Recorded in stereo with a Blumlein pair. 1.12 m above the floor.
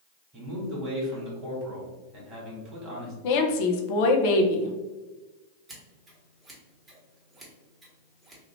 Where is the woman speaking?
50° left, 0.6 m.